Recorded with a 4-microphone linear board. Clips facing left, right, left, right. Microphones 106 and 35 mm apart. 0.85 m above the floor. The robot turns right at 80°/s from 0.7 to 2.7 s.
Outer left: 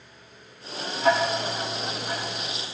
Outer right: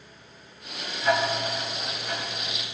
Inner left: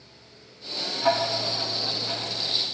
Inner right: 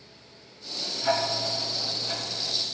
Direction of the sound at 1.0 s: 70° left (ahead or behind).